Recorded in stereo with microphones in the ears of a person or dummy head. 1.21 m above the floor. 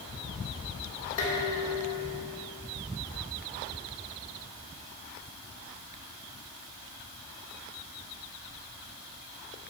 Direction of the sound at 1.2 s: 70° left (ahead or behind).